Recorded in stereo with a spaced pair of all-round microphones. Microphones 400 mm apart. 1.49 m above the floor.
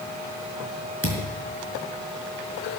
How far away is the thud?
About 4 m.